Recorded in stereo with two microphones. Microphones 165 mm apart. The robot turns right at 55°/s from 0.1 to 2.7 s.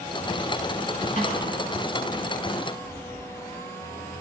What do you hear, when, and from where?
1.2 s a snare drum: 55° left (ahead or behind), 10 m; by 1.4 s 70° left (ahead or behind), 10 m